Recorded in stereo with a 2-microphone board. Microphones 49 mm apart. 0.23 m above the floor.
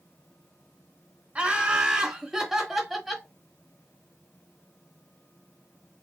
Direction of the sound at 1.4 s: 25° right (ahead or behind).